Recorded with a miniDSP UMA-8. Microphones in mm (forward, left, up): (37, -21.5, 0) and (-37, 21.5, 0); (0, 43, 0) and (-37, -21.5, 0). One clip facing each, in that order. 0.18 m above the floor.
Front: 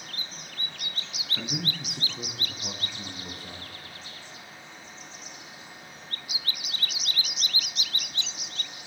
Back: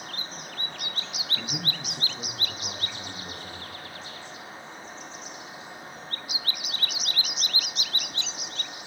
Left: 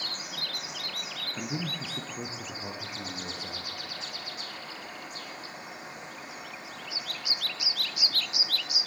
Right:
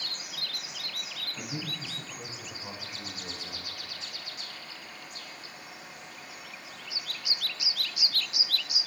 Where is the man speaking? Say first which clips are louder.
Front 3 dB, left 4 dB; 45° left, 1.5 m; by 3.7 s 60° left, 4.5 m.